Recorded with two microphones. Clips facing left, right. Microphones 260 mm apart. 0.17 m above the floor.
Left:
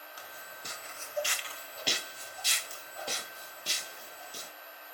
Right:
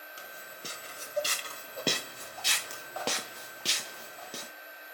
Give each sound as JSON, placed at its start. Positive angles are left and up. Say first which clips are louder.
{"t": 0.2, "sound": "footsteps", "louder": "right 5 dB", "side_deg": -25, "distance_m": 1.8}